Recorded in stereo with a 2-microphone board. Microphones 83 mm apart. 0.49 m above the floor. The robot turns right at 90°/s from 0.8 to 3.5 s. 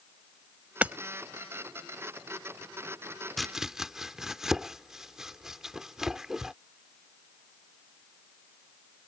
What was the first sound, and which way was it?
Hammering, 20° right (ahead or behind).